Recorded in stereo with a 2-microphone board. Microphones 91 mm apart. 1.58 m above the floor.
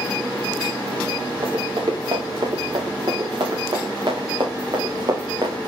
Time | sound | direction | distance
1.4 | running footsteps | 60° right (ahead or behind) | 7 m